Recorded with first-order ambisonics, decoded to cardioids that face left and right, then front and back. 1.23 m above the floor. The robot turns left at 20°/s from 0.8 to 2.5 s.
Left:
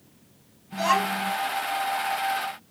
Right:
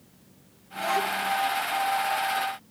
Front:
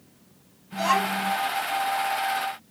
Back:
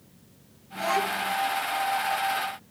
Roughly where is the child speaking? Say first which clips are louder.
Left 3 dB, front 3 dB; ahead left.